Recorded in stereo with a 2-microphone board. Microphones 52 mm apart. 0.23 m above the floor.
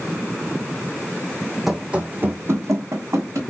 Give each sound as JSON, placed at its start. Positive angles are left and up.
{"t": 1.7, "sound": "running footsteps", "side_deg": -5, "distance_m": 0.6}